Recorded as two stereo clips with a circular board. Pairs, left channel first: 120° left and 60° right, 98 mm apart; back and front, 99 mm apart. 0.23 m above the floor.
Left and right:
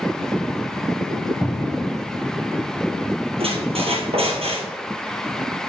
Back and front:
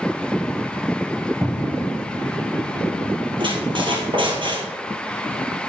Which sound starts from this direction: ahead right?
A squeak, at 3.4 s.